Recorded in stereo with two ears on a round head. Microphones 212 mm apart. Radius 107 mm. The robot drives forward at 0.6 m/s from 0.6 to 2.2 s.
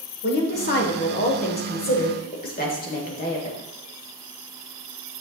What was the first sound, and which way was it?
A woman speaking, 45° left (ahead or behind).